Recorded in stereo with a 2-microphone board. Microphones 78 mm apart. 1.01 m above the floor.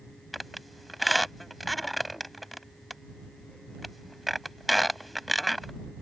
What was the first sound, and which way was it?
A squeak, centre (ahead or behind).